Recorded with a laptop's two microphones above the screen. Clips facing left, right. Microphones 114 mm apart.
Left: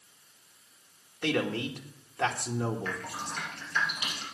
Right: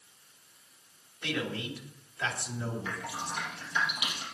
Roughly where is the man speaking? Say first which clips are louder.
Left 5 dB; left.